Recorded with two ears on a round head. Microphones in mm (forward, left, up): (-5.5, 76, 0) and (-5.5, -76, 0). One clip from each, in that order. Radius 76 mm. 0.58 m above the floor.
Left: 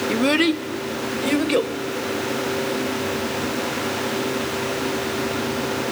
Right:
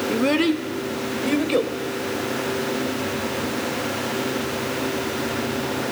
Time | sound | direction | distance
0.1 | a child speaking | 25° left (ahead or behind) | 0.8 m